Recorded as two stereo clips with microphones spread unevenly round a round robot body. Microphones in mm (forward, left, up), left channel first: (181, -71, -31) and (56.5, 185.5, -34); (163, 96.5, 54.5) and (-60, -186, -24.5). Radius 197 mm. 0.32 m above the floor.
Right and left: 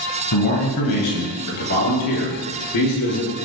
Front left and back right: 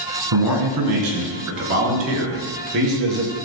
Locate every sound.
0.3 s a man speaking: 95° right, 3 m; by 3.5 s 65° right, 4.5 m